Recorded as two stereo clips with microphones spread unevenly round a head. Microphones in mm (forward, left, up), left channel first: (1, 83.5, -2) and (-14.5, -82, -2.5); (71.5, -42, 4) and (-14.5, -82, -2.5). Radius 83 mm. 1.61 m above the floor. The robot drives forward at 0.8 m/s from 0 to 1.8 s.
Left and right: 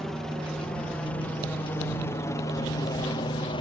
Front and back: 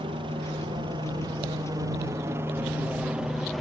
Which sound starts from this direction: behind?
A helicopter, at 0.0 s.